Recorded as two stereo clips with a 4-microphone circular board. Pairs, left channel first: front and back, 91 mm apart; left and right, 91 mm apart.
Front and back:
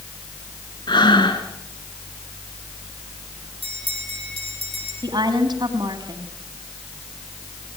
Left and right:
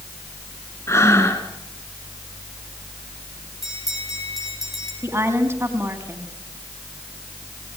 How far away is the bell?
About 6 m.